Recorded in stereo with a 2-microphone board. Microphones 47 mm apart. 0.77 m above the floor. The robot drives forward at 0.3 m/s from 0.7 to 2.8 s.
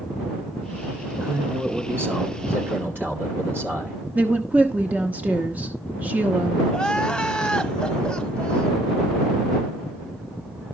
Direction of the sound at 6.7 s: 15° left (ahead or behind).